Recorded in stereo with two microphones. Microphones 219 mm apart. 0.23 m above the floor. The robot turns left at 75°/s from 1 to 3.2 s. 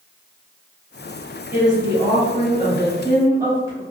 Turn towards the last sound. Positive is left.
turn(degrees=-15)  # may be behind; listen again after turning